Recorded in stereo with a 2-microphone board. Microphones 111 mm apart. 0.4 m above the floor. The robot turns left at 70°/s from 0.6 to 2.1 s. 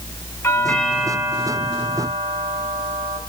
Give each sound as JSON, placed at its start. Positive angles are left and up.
{"t": 0.4, "sound": "a doorbell", "azimuth_deg": 20, "distance_m": 6.0}